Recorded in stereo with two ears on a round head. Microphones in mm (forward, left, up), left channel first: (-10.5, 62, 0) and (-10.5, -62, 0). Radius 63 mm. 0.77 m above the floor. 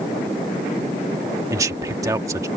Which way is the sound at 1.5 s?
25° right (ahead or behind).